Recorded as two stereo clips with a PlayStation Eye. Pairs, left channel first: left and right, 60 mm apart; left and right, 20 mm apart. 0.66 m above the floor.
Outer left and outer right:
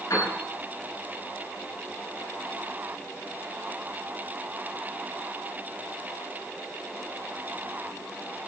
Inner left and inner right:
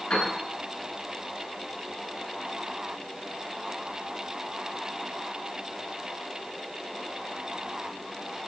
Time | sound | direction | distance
0.1 | a piano | 65° left (ahead or behind) | 9 m